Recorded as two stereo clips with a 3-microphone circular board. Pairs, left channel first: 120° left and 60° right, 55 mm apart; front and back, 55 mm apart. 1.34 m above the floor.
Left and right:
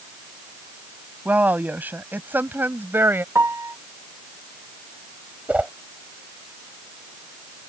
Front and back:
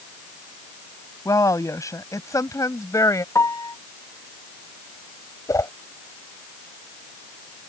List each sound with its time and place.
1.2 s a woman speaking: straight ahead; by 3.2 s 15° right
3.4 s a piano: 25° right
5.5 s a whoosh: 5° left